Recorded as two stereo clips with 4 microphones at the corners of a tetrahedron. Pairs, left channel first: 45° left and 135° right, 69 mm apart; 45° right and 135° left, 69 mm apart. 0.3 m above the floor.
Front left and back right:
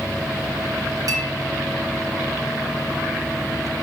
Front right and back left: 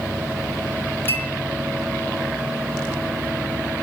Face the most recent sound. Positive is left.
turn(degrees=-105)